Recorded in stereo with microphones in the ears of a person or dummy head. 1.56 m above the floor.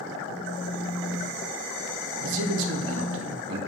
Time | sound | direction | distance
0.3 | a phone buzzing | 65° right (ahead or behind) | 3 m
2.2 | a man speaking | 75° right (ahead or behind) | 1.2 m